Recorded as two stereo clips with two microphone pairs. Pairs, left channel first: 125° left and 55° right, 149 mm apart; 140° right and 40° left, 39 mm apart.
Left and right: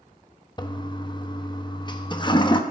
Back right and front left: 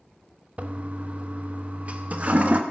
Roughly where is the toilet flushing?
Left.